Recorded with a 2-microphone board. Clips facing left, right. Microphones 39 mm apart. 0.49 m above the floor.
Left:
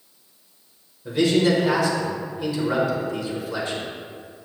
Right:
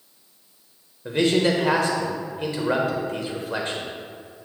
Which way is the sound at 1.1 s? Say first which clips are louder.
Left 1 dB; 50° right (ahead or behind).